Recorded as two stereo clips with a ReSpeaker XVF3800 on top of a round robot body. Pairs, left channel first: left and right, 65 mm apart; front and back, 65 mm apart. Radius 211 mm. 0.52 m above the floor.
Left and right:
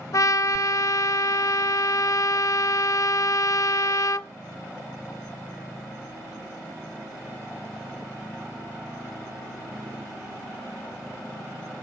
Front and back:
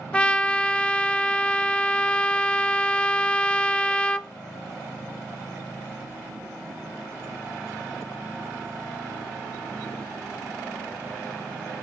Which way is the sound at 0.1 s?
70° left.